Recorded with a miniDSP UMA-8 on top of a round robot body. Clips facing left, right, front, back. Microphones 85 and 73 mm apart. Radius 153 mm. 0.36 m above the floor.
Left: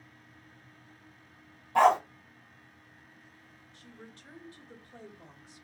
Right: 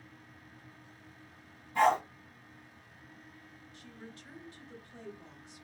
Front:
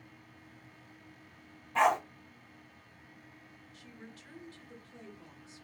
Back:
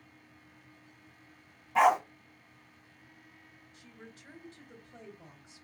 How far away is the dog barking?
About 0.8 m.